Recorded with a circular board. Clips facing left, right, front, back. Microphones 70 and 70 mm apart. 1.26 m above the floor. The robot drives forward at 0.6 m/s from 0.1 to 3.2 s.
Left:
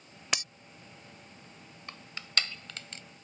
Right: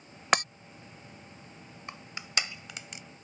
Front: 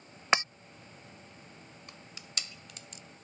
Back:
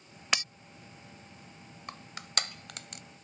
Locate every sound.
0.3 s breaking glass: 55° right; by 0.4 s 60° right
1.9 s crushing: 160° right; by 3.0 s 165° right